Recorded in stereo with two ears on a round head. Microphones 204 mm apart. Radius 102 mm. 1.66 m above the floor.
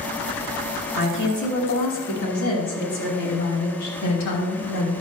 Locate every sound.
1.0 s a woman speaking: 50° left (ahead or behind), 3 m; by 4.9 s 85° left, 3.5 m